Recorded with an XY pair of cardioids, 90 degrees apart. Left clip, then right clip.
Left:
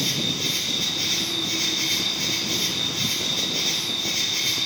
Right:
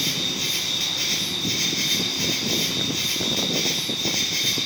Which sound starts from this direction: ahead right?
An insect, at 0.0 s.